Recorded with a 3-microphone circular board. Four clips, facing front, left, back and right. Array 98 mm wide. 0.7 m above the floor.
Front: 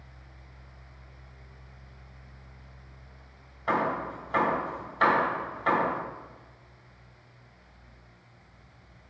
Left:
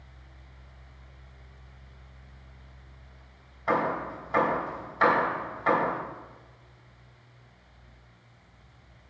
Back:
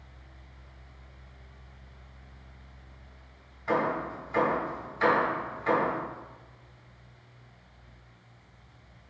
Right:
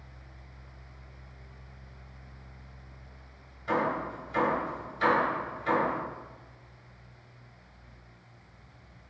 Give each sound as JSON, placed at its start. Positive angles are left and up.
{"t": 3.7, "sound": "hammering", "azimuth_deg": 55, "distance_m": 3.0}